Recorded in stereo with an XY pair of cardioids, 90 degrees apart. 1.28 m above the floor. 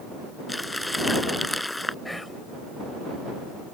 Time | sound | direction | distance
0.5 | crumpling | 10° left | ?
2.0 | whispering | 10° left | ?